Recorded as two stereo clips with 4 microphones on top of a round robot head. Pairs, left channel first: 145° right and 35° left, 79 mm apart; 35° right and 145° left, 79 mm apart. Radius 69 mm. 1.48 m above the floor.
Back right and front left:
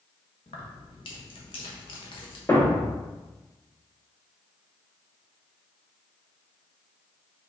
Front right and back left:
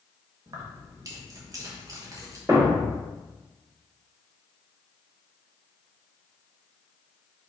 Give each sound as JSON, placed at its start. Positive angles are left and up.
{"t": 0.5, "sound": "keys jangling", "azimuth_deg": -165, "distance_m": 1.3}
{"t": 2.5, "sound": "a thud", "azimuth_deg": 175, "distance_m": 0.9}